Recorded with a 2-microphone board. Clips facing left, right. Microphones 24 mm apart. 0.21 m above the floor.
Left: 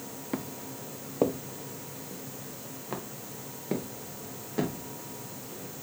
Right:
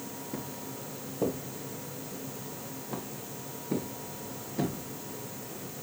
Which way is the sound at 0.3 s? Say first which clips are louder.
Left 5 dB; 75° left (ahead or behind).